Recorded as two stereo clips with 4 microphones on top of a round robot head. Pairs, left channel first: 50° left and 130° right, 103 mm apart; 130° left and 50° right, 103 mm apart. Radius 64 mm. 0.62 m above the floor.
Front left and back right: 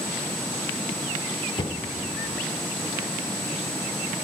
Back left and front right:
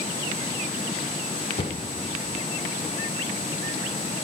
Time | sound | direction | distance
1.6 | a cupboard door | 95° left | 0.9 m